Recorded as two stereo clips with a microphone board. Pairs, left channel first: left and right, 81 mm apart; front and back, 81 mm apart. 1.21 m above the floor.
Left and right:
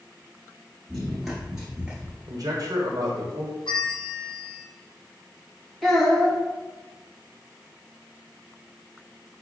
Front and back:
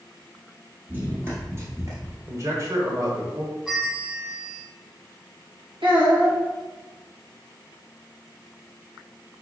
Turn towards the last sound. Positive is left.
turn(degrees=180)